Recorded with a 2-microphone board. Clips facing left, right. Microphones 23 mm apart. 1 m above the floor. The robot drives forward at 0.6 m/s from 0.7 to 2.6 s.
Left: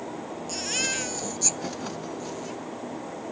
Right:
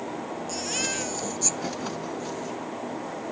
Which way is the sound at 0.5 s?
15° left (ahead or behind).